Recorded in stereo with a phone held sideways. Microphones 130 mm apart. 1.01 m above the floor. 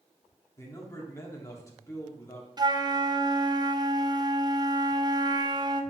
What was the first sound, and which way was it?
A man speaking, 25° left (ahead or behind).